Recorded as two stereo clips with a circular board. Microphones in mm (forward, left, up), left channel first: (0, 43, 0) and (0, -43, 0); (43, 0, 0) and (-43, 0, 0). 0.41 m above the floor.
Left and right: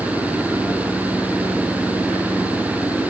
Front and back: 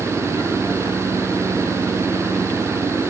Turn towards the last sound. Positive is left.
No sound to turn to.